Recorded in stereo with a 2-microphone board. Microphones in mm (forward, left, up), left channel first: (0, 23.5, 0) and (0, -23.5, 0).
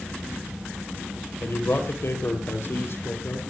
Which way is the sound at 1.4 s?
65° left (ahead or behind).